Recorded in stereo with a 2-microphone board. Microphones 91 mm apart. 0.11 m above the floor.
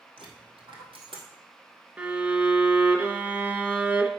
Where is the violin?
20° right (ahead or behind), 0.9 m.